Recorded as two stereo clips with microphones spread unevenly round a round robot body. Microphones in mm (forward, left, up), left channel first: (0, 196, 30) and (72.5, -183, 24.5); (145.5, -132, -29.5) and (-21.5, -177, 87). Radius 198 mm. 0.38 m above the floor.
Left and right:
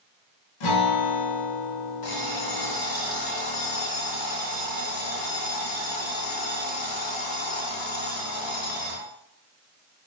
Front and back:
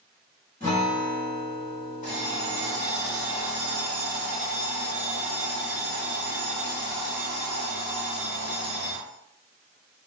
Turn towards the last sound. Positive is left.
turn(degrees=65)